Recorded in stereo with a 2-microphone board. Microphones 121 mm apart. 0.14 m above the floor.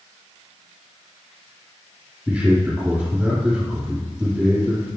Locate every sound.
2.3 s a man speaking: 10° right (ahead or behind), 4 m